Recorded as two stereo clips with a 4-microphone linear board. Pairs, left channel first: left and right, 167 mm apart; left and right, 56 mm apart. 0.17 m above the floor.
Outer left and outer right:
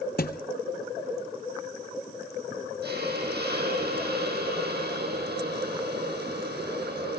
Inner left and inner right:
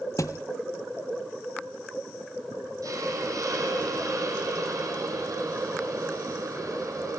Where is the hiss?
80° right, 4.5 m.